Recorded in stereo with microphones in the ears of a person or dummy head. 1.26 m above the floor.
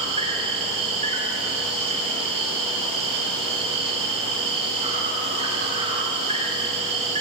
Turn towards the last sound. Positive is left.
turn(degrees=-35)  # may be behind; listen again after turning